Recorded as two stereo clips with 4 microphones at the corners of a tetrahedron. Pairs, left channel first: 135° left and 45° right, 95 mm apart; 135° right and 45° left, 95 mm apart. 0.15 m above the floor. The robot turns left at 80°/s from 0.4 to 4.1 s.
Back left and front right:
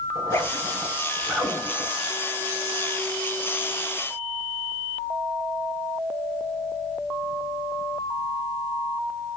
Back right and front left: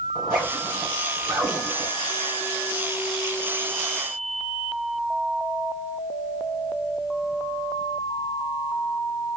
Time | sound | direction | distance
0.1 | a zipper | 130° left | 1.9 m